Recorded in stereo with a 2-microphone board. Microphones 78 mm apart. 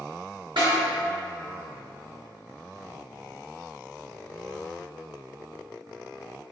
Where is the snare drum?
85° right, 1.8 m.